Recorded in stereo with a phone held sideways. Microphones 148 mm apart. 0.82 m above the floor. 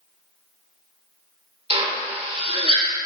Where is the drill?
40° right (ahead or behind), 2.5 m.